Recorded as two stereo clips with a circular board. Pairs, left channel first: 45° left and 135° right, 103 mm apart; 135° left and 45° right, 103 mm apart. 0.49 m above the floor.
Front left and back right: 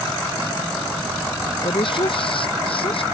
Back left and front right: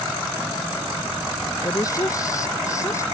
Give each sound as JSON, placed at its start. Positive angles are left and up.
{"t": 1.6, "sound": "a woman speaking", "azimuth_deg": 80}